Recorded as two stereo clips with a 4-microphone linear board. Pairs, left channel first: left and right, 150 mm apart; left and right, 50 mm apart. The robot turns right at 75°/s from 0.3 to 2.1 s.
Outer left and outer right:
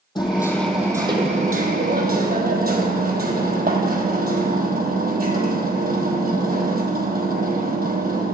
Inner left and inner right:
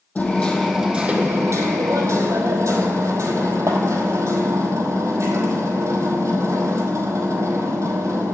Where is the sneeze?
I don't hear a sneeze.